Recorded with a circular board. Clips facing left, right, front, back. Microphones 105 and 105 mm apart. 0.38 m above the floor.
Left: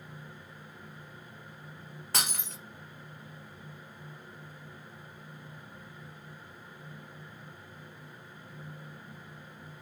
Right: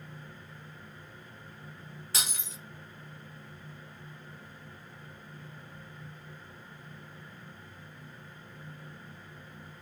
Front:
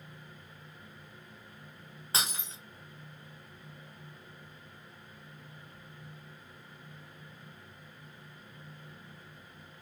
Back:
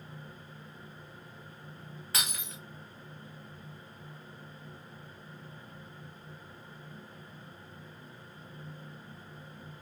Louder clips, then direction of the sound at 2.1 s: Left 4 dB, front 2 dB; 60° left.